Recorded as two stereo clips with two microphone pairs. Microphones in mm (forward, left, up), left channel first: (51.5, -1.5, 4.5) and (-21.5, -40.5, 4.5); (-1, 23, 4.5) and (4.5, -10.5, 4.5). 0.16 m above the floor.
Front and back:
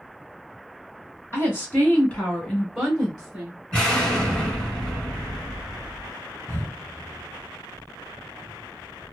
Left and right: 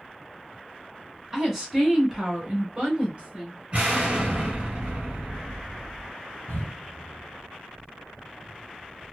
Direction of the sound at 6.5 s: 90° left.